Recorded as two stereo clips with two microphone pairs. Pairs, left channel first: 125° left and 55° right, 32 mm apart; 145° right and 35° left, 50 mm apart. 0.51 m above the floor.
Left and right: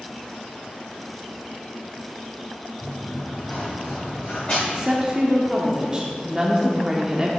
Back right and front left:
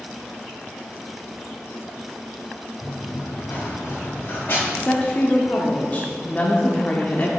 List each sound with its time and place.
2.8 s running footsteps: 175° right, 1.9 m; by 4.6 s 170° left, 3 m
4.7 s a woman speaking: 115° right, 0.8 m